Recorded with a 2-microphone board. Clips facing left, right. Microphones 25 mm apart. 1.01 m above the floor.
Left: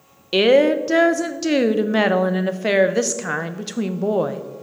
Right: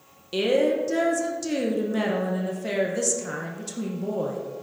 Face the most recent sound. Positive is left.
turn(degrees=45)  # may be behind; listen again after turning